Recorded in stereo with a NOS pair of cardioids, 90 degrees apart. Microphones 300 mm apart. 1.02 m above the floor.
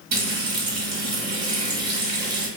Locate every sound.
0.1 s frying: 55° right, 1.6 m